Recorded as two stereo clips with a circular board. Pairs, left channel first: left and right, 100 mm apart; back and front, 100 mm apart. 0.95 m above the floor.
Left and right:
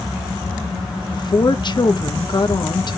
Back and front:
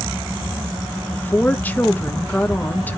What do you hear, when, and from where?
1.1 s a woman speaking: 110° left, 1.2 m